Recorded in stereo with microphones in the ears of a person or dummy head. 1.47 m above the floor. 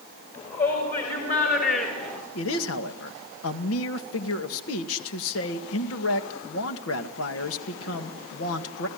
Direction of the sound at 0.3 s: 45° left (ahead or behind).